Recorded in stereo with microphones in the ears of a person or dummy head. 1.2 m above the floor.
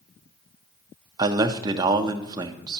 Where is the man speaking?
25° right (ahead or behind), 0.6 m.